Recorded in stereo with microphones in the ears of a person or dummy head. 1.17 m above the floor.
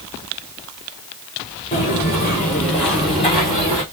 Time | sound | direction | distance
1.7 | footsteps | 25° left (ahead or behind) | 1.5 m